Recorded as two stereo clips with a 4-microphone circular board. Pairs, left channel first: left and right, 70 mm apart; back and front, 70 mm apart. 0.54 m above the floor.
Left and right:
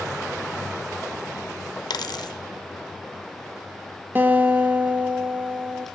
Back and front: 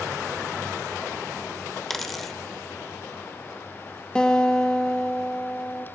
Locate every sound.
1.9 s a dropped coin: 90° left, 0.8 m
4.2 s a guitar: 115° right, 1.0 m